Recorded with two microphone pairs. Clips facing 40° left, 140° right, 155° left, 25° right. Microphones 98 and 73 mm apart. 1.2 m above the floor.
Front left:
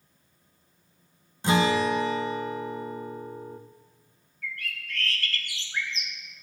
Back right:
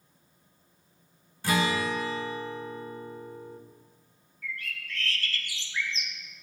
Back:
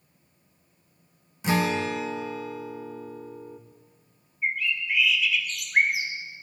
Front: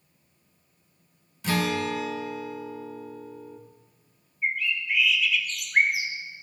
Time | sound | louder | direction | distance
1.4 | a guitar | front left 4 dB, back 2 dB | 95° left | 0.8 m
4.4 | a bird | front left 1 dB, even | 65° left | 1.2 m